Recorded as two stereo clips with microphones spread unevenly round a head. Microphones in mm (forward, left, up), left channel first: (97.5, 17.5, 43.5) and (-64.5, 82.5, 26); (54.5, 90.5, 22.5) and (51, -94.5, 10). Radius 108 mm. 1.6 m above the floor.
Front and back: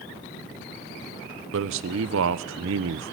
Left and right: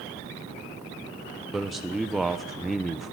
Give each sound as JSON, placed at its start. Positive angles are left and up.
{"t": 1.5, "sound": "a man speaking", "azimuth_deg": 180, "distance_m": 0.9}